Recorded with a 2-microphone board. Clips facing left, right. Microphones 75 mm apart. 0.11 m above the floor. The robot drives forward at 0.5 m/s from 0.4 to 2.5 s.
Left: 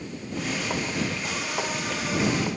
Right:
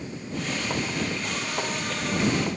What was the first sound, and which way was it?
Only background noise.